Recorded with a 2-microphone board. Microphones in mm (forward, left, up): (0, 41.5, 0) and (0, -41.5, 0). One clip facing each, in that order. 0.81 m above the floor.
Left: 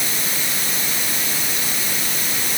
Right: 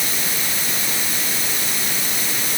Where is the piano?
I don't hear a piano.